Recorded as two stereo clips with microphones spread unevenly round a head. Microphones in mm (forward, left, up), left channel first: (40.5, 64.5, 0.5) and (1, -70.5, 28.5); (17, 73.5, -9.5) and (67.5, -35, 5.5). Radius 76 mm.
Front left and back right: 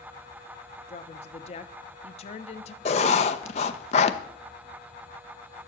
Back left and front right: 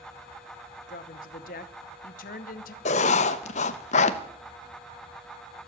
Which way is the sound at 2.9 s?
125° left.